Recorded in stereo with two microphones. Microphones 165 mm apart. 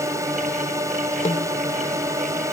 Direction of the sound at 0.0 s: 20° right (ahead or behind).